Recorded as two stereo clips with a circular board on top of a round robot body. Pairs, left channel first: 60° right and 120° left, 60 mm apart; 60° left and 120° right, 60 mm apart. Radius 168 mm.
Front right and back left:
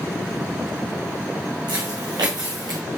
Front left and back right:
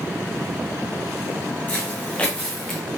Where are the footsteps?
125° left, 2 m; by 2.8 s 140° left, 1.7 m.